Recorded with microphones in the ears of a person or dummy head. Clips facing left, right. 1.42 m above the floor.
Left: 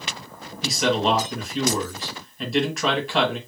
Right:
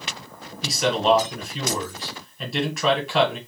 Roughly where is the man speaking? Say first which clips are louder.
Right 1 dB; centre.